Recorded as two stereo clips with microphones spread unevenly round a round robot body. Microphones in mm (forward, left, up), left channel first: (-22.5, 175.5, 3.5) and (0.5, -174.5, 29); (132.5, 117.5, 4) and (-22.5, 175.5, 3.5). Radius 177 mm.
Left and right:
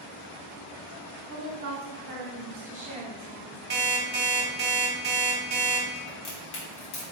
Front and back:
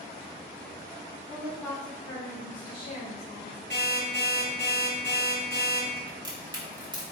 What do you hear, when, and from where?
1.3 s a woman speaking: 110° right, 1.2 m; by 3.6 s straight ahead, 1.3 m
3.7 s an alarm clock: 150° right, 1.2 m
6.1 s a crack: 105° left, 1.8 m